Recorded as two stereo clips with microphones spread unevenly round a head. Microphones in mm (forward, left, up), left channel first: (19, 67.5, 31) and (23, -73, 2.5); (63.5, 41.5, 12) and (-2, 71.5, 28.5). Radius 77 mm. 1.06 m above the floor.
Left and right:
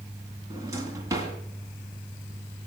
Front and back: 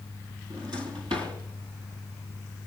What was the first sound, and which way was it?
A drawer, 160° right.